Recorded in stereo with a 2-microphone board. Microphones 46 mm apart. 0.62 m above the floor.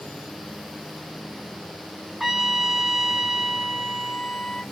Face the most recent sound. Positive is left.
turn(degrees=0)  # may be behind; listen again after turning